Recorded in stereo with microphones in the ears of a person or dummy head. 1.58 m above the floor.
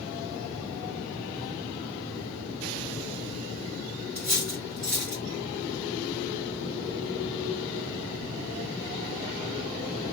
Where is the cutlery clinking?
10° left (ahead or behind), 0.8 m.